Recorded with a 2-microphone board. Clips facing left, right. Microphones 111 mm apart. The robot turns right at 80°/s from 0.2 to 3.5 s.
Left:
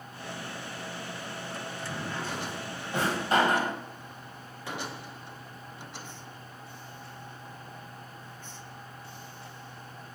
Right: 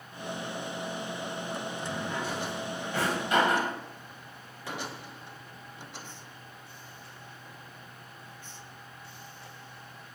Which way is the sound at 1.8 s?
35° right (ahead or behind).